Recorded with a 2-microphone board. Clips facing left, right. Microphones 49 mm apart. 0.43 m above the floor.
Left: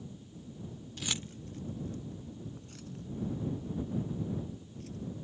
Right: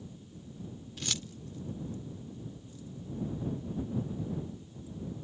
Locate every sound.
1.0 s keys jangling: 5° right (ahead or behind); by 5.0 s 75° left (ahead or behind)